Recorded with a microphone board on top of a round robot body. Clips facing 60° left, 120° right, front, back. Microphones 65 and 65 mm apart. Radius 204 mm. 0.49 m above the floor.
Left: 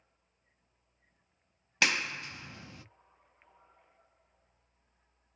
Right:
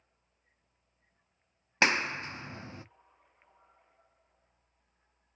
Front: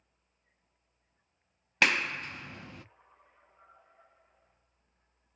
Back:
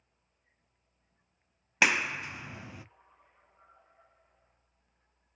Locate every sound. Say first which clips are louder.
1.8 s a clap: right 3 dB, back 1 dB; 105° right, 0.5 m